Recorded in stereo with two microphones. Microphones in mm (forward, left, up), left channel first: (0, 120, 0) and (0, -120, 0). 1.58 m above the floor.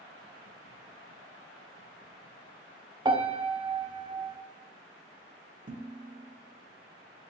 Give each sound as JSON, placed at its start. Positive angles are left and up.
{"t": 3.0, "sound": "a piano", "side_deg": -20, "distance_m": 0.6}
{"t": 5.7, "sound": "dishes clattering", "side_deg": -30, "distance_m": 0.9}